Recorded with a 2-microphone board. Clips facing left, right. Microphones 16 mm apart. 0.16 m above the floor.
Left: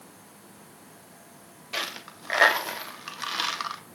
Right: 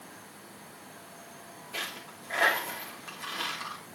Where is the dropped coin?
55° left (ahead or behind), 0.7 m.